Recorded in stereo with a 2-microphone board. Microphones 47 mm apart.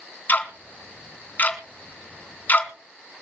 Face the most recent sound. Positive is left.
turn(degrees=40)  # may be behind; listen again after turning